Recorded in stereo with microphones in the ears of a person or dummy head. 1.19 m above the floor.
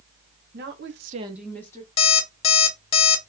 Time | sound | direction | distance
0.5 | a woman speaking | 50° right (ahead or behind) | 1.0 m
2.0 | an alarm clock | 30° left (ahead or behind) | 0.7 m